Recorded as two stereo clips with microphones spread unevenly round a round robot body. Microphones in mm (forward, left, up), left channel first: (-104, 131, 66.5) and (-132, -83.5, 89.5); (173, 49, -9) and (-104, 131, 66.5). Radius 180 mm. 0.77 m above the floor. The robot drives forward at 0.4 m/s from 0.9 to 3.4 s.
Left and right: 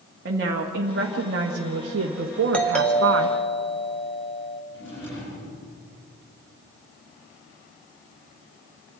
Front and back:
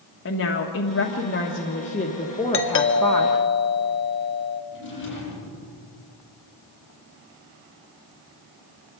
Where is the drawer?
35° left, 9.5 m.